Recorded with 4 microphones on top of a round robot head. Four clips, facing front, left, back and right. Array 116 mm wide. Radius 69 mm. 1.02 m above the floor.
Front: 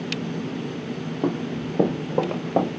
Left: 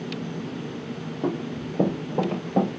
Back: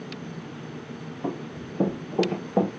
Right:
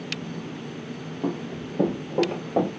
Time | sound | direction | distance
1.2 | running footsteps | 5° left | 3.5 m